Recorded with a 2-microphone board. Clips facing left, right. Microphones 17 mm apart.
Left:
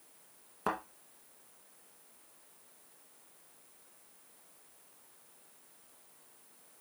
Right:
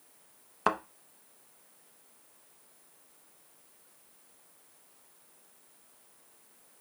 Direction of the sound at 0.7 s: 40° right (ahead or behind).